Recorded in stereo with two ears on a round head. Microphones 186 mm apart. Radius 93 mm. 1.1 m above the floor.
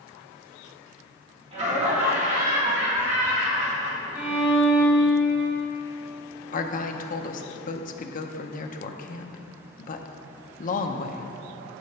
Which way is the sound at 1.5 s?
35° right (ahead or behind).